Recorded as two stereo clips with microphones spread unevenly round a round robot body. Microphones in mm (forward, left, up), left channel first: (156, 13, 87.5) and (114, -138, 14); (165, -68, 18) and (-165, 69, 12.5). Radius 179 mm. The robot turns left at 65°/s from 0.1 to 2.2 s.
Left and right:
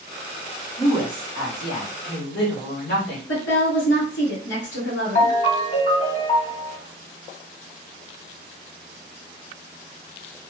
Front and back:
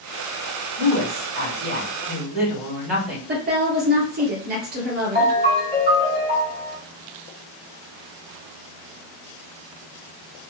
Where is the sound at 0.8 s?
160° left, 2 m; by 3.2 s 70° left, 2 m.